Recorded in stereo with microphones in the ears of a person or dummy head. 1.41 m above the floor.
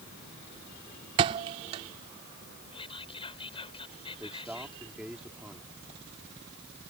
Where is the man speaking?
5° right (ahead or behind).